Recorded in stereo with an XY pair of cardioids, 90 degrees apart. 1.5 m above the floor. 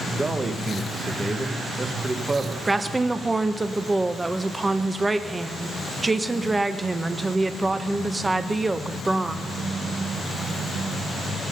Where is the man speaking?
30° right, 1.6 m.